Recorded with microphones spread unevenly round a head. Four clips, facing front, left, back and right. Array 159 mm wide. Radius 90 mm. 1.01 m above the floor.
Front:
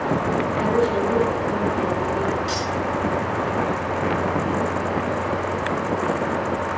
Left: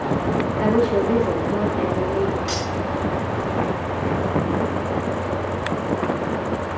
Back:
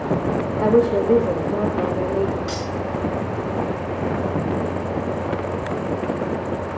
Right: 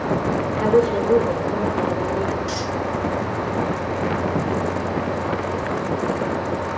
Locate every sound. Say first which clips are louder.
0.6 s a woman speaking: right 2 dB, back 6 dB; 150° left, 2 m
2.5 s cutlery clinking: even, front 2 dB; 145° left, 8 m